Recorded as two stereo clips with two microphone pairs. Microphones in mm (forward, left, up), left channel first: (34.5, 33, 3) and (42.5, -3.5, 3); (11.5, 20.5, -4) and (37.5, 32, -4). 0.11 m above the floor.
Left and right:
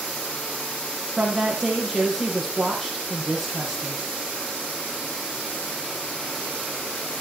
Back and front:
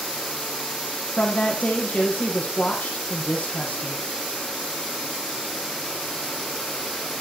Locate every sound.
1.2 s a woman speaking: 165° right, 4 m